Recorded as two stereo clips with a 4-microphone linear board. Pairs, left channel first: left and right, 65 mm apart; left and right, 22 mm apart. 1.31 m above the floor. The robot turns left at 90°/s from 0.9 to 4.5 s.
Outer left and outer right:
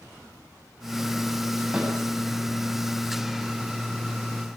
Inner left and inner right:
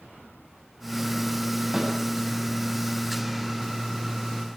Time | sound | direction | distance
1.7 | a snare drum | 10° right (ahead or behind) | 8.5 m